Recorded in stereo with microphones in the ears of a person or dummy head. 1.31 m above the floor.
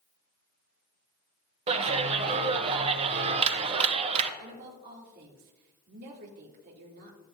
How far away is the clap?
About 0.8 m.